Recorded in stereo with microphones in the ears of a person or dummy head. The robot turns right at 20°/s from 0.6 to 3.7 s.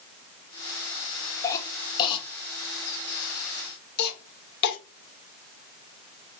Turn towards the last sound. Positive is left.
turn(degrees=55)  # may be behind; listen again after turning